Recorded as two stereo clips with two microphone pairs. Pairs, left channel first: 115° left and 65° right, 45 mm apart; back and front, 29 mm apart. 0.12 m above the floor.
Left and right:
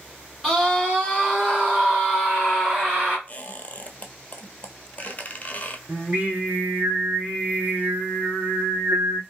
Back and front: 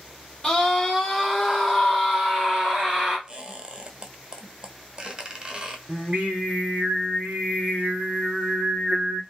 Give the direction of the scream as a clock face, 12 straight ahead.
5 o'clock.